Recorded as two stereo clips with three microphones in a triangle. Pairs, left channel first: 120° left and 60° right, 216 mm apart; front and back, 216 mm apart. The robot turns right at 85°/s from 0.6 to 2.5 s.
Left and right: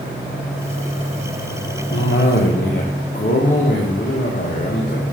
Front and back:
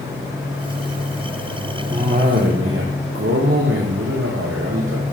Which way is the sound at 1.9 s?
110° left.